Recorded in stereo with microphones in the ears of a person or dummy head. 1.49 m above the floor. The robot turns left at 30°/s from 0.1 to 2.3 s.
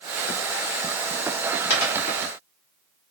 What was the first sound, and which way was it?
A dropped coin, 65° left (ahead or behind).